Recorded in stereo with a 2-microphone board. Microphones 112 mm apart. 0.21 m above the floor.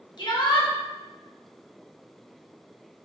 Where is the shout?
45° left (ahead or behind), 2.5 m.